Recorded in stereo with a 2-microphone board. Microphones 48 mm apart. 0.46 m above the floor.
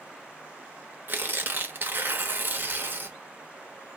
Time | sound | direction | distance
1.1 | tearing paper | 45° right (ahead or behind) | 0.5 m